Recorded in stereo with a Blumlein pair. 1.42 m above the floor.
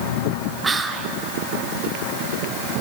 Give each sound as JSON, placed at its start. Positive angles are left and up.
{"t": 0.6, "sound": "whispering", "azimuth_deg": -15, "distance_m": 0.8}